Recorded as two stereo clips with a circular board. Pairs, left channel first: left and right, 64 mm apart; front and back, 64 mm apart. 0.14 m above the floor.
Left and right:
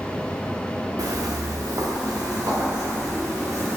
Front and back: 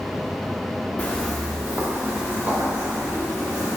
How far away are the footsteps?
About 0.5 m.